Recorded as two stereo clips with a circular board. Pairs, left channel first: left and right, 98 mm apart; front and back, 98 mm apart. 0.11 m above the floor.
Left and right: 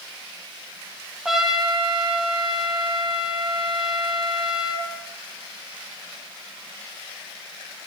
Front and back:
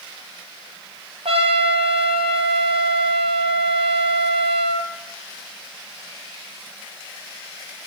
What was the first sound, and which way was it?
A trumpet, 175° right.